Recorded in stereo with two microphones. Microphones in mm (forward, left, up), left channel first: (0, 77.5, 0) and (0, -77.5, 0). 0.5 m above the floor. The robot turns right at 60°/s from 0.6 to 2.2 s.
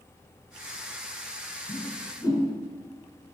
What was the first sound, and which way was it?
A whoosh, 55° left (ahead or behind).